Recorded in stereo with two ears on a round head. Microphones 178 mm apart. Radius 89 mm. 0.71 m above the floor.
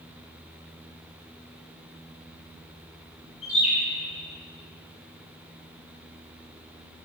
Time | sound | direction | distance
3.4 | a bird | 30° left (ahead or behind) | 3 m